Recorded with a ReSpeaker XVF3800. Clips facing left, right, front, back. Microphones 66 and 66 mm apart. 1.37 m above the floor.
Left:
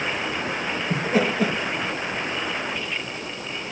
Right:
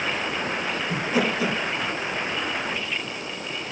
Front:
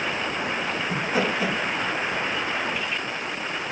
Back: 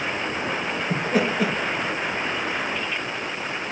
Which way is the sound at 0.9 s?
140° left.